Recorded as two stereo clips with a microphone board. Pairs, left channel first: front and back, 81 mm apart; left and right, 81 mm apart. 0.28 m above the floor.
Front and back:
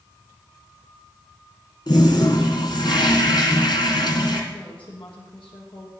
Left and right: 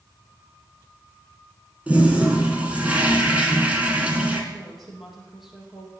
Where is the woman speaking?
5° right, 6.5 m.